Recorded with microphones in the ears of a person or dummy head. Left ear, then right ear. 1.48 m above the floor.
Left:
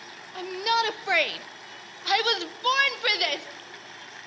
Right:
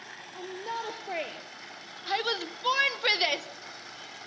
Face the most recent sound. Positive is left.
turn(degrees=-10)  # may be behind; listen again after turning